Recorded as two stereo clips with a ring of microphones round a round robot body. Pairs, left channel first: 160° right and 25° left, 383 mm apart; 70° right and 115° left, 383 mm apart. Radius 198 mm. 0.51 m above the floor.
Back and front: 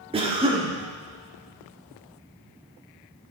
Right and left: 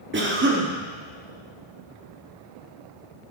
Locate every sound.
0.1 s a cough: 85° left, 1.4 m